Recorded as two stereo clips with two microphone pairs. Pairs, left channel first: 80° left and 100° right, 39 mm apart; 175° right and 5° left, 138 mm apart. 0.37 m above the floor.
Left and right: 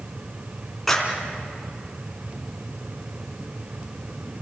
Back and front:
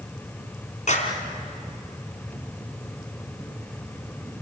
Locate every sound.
0.9 s a clap: 160° left, 3 m